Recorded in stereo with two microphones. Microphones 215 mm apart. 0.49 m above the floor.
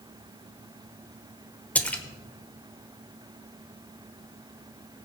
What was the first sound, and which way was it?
A splash, 5° left (ahead or behind).